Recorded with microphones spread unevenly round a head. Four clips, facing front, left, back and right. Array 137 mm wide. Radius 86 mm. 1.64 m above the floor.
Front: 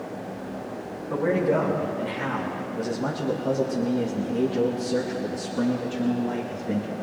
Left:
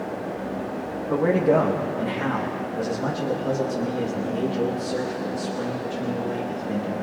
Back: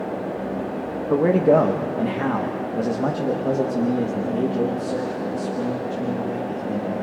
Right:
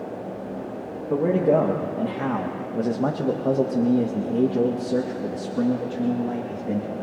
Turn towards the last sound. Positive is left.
turn(degrees=-75)